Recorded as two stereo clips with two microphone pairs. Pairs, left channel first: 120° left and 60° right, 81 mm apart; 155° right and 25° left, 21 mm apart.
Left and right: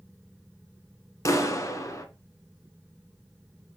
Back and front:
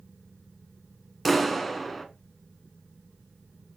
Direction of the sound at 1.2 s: 120° left.